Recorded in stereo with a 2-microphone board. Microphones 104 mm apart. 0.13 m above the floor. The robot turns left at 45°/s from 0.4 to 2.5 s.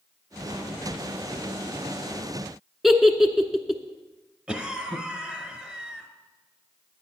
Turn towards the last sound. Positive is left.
turn(degrees=-10)  # may be behind; listen again after turning